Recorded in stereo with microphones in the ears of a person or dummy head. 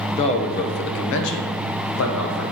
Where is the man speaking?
30° left (ahead or behind), 0.8 m; by 2.4 s 80° left, 1.6 m.